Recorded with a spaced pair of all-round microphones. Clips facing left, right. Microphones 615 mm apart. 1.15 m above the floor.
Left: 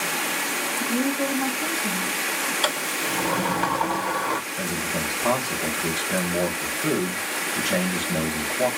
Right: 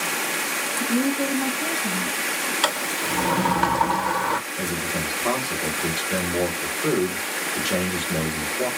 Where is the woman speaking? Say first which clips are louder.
Right 2 dB; 10° right (ahead or behind), 1.4 m.